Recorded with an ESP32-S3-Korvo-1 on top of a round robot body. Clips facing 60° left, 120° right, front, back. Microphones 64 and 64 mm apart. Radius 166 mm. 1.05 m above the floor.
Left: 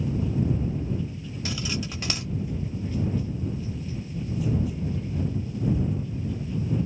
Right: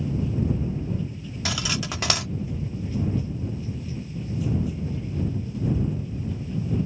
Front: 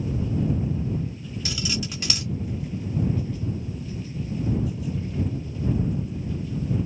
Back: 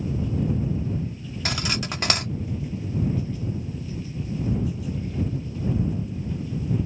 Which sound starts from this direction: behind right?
Cutlery clinking, at 1.4 s.